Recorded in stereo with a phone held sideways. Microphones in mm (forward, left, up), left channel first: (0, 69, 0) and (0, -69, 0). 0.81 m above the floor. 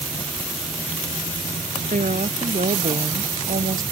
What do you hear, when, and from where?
1.9 s a woman speaking: 70° right (ahead or behind)